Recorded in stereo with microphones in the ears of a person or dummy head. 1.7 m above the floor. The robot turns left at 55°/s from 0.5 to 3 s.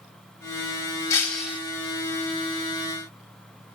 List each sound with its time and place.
1.1 s breaking glass: 15° left (ahead or behind), 3 m; by 1.6 s 10° right (ahead or behind), 3 m